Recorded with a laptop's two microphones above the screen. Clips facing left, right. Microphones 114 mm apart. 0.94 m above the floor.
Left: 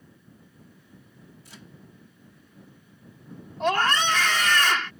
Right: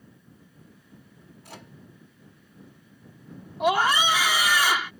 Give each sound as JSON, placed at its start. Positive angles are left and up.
{"t": 1.4, "sound": "a microwave", "side_deg": -60}
{"t": 3.6, "sound": "a scream", "side_deg": -10}